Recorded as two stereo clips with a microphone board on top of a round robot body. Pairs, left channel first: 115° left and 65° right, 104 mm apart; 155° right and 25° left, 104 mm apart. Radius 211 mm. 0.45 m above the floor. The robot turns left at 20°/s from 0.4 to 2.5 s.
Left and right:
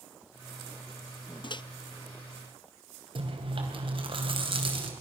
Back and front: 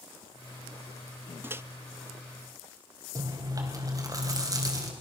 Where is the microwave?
85° left, 0.7 m.